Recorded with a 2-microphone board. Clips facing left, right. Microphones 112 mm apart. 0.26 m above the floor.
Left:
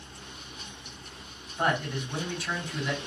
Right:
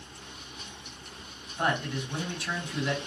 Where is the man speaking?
Centre (ahead or behind), 2.0 m.